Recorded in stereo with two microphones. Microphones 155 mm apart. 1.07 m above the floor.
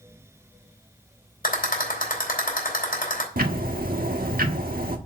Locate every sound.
1.4 s a rattle: 70° left (ahead or behind), 3.5 m
3.4 s ticking: 75° right (ahead or behind), 1.3 m